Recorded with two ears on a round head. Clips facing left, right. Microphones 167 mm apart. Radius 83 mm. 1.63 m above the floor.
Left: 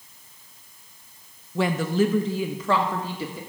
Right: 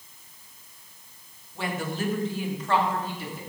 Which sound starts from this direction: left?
A woman speaking, at 1.6 s.